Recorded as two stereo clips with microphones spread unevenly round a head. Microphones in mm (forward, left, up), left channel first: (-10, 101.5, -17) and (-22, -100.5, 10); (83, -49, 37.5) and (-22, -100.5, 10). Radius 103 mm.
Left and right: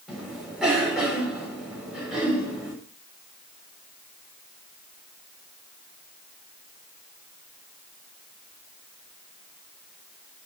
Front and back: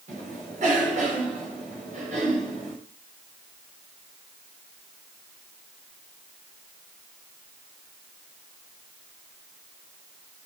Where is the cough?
Straight behind, 4 m.